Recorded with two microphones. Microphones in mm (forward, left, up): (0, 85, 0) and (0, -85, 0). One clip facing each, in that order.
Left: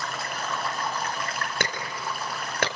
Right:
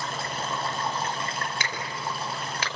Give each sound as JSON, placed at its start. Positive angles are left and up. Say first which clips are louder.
{"t": 0.0, "sound": "running water", "louder": "right 1 dB", "side_deg": -25, "distance_m": 2.5}
{"t": 1.6, "sound": "a clap", "louder": "left 2 dB", "side_deg": 55, "distance_m": 5.0}